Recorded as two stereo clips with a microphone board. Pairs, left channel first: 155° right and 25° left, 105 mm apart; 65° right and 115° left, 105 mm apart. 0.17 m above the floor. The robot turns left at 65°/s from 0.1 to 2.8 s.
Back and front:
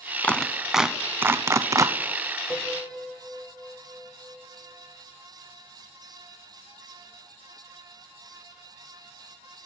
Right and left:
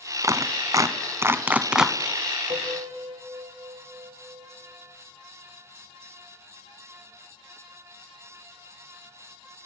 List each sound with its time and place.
0.2 s a clap: 135° left, 1.0 m; by 2.0 s 25° left, 1.0 m
2.5 s a piano: 115° left, 5 m; by 4.5 s 95° left, 5 m